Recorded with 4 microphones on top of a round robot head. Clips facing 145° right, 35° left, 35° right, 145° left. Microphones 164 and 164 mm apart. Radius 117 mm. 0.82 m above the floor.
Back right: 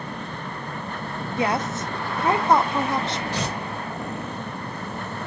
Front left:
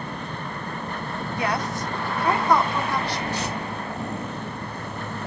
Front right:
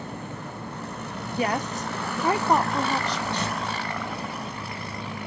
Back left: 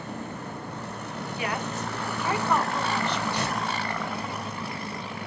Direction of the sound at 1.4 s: 80° right.